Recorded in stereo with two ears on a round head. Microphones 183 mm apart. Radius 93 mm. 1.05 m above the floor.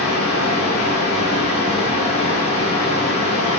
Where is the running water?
35° left (ahead or behind), 5 m.